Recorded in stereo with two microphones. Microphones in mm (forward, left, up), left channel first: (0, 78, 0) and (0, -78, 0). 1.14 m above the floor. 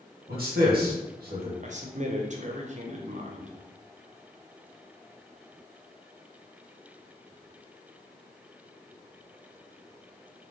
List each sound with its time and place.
0.3 s a man speaking: 75° right (ahead or behind), 1.2 m
1.6 s a man speaking: 50° right (ahead or behind), 0.6 m